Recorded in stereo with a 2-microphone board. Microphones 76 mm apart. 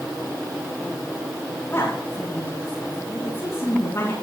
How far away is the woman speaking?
About 7 m.